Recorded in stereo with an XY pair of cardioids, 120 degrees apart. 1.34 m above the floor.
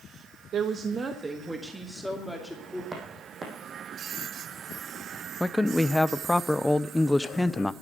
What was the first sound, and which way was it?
A woman speaking, 55° right.